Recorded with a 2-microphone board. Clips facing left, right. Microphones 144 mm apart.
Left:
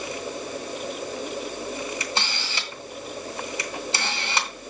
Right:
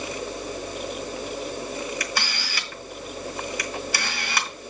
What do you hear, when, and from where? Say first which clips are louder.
2.0 s a camera shutter: even; 25° left (ahead or behind), 1.9 m